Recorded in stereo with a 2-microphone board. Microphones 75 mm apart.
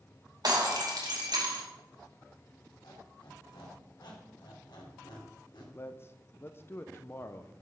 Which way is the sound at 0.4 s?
60° right (ahead or behind).